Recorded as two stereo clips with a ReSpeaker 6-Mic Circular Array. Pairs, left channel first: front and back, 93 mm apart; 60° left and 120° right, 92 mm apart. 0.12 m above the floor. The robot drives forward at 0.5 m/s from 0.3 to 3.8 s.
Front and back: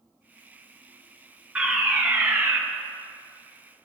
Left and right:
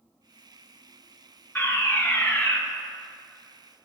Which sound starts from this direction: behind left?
A fire alarm, at 1.6 s.